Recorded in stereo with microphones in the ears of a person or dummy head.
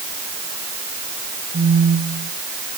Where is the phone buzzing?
35° right (ahead or behind), 2 m.